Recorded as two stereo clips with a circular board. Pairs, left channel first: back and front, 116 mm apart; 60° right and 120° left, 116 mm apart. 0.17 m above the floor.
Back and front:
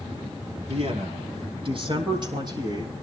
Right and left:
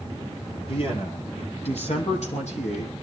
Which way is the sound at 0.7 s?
25° right.